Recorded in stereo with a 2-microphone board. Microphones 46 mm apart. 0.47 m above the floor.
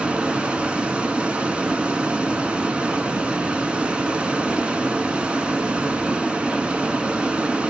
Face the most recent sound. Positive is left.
turn(degrees=-20)  # may be behind; listen again after turning